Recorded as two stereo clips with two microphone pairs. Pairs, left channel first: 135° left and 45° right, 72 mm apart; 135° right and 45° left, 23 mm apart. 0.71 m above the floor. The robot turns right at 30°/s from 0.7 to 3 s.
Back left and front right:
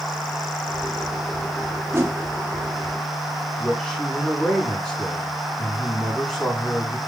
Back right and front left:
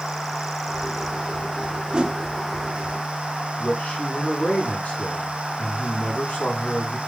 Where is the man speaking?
135° right, 6.5 m.